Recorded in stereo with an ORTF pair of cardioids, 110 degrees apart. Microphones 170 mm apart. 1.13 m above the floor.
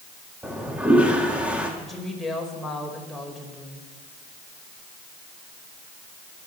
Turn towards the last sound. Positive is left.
turn(degrees=0)